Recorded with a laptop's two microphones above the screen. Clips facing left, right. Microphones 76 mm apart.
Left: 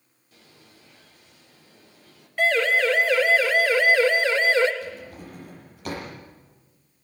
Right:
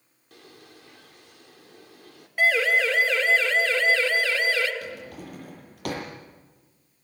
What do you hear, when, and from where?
0.3 s a bird: 70° right (ahead or behind), 3.5 m
2.4 s a siren: 10° right (ahead or behind), 3.5 m; by 4.7 s 30° left (ahead or behind), 3.5 m
4.8 s a drawer: 65° right (ahead or behind), 8.5 m